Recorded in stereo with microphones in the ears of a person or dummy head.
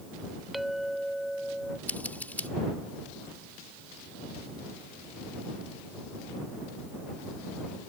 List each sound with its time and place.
0.5 s a clink: centre (ahead or behind)
1.9 s scissors: 10° left (ahead or behind)